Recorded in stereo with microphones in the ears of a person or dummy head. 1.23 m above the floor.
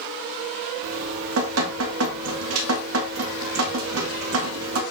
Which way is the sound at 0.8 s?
85° right.